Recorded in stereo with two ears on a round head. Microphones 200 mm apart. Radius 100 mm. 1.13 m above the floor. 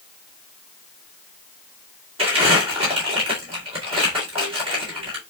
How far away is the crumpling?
About 2 m.